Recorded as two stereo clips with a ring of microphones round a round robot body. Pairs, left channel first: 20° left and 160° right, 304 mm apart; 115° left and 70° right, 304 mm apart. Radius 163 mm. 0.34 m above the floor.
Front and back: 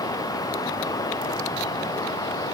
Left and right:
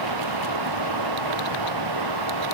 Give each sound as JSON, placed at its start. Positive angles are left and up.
{"t": 0.0, "sound": "running water", "azimuth_deg": -55}